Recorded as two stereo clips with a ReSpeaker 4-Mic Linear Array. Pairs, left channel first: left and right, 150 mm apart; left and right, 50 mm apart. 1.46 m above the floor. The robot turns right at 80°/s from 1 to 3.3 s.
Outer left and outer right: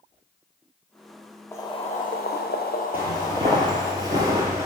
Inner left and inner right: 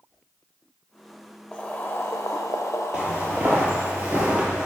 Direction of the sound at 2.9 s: 15° right (ahead or behind).